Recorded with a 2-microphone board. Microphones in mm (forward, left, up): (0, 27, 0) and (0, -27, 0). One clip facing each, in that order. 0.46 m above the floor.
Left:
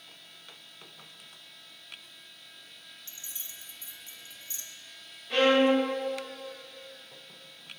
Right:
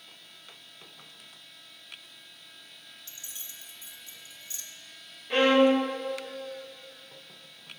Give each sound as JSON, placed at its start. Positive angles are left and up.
{"t": 3.1, "sound": "keys jangling", "side_deg": 30, "distance_m": 0.5}
{"t": 5.3, "sound": "a violin", "side_deg": -25, "distance_m": 1.0}